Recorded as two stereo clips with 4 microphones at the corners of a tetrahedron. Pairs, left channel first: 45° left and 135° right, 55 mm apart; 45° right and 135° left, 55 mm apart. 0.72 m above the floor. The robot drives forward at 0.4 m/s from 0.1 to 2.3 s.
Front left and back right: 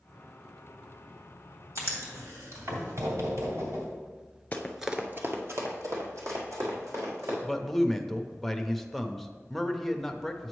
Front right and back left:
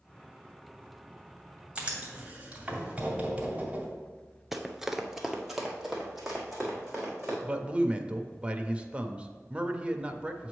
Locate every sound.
1.8 s writing: 150° right, 2 m; by 3.9 s 155° right, 2.5 m
4.5 s running footsteps: 50° left, 0.7 m; by 7.3 s 140° right, 3.5 m
7.4 s a man speaking: 130° left, 0.5 m